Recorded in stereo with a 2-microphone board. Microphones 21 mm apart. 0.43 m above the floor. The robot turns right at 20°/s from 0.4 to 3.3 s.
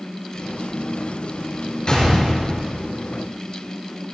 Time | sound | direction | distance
1.9 | a gunshot | 40° left (ahead or behind) | 5 m